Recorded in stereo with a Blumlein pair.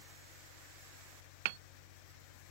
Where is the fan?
50° left.